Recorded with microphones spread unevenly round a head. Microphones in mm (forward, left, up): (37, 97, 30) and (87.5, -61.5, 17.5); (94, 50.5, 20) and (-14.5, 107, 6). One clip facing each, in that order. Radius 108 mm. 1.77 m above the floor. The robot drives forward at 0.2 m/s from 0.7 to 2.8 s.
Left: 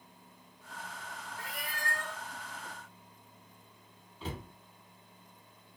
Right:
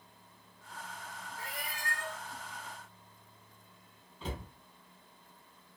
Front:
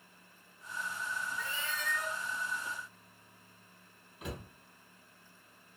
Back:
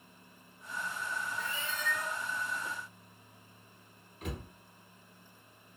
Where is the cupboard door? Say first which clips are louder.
Even, back 1 dB; 45° left, 0.9 m.